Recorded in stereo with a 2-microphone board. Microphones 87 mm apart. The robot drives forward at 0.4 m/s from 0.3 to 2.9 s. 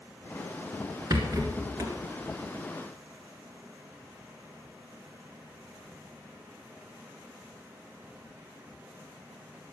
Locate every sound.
1.1 s a rattle: 45° right (ahead or behind), 1.9 m; by 2.0 s 40° right (ahead or behind), 2 m